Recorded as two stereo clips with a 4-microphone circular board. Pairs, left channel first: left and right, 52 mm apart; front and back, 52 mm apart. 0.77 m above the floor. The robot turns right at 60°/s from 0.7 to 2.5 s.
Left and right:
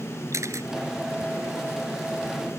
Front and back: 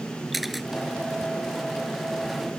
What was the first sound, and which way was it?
A camera shutter, 95° right.